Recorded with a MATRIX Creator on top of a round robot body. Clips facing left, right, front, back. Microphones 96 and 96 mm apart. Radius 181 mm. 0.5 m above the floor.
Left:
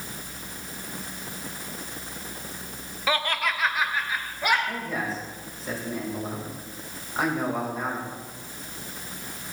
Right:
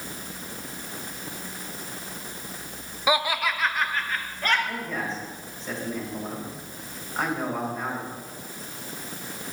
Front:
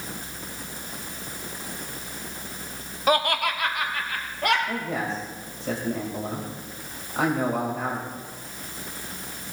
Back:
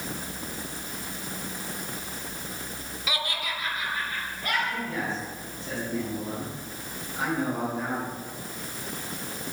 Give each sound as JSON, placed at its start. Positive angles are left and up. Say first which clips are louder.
{"t": 3.1, "sound": "laughter", "louder": "right 2 dB, front 11 dB", "azimuth_deg": -20, "distance_m": 1.0}
{"t": 4.7, "sound": "a man speaking", "louder": "left 1 dB, front 2 dB", "azimuth_deg": 5, "distance_m": 4.5}